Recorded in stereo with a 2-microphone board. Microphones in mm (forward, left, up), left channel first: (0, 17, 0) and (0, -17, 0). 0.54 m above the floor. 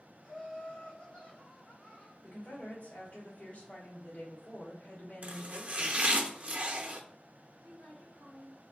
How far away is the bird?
I don't hear a bird.